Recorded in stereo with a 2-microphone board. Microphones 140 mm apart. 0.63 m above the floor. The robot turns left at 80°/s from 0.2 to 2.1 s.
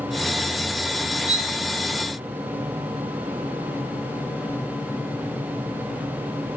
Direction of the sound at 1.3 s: 50° right (ahead or behind).